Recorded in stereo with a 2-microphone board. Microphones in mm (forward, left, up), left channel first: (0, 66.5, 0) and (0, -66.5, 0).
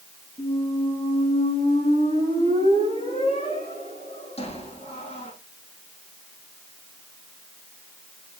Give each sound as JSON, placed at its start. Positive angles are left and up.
{"t": 0.4, "sound": "a squeak", "side_deg": 50, "distance_m": 9.0}